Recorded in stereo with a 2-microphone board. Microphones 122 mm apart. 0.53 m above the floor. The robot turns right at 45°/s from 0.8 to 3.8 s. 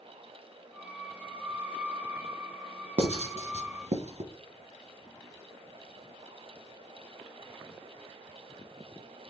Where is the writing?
55° right (ahead or behind), 0.7 m; by 4.3 s 65° right (ahead or behind), 0.7 m.